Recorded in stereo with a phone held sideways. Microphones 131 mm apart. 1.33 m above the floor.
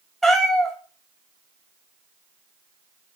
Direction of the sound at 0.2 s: Centre (ahead or behind).